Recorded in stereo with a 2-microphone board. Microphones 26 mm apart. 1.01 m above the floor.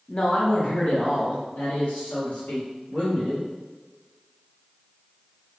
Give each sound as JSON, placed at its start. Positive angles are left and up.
{"t": 0.1, "sound": "a man speaking", "side_deg": 35, "distance_m": 0.9}